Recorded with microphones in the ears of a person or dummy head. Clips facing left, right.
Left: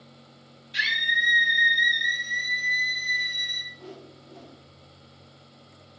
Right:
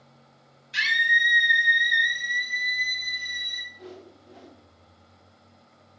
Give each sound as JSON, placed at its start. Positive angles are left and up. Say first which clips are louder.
{"t": 0.7, "sound": "a scream", "louder": "right 4 dB", "side_deg": -65, "distance_m": 1.6}
{"t": 3.7, "sound": "a whoosh", "louder": "even", "side_deg": -10, "distance_m": 0.7}